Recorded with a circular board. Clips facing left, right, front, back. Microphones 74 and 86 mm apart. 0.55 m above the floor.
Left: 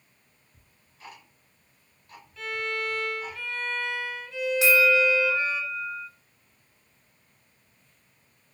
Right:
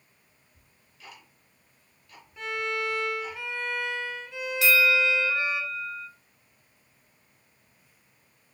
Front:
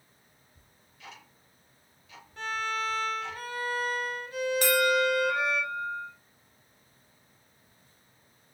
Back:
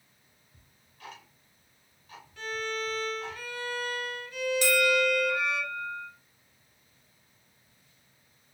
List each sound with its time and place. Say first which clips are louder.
0.5 s ticking: left 2 dB, back 4 dB; 135° left, 2.0 m
2.4 s a violin: right 1 dB, front 2 dB; 30° right, 0.8 m
4.6 s a bell: left 2 dB, front 1 dB; 30° left, 0.9 m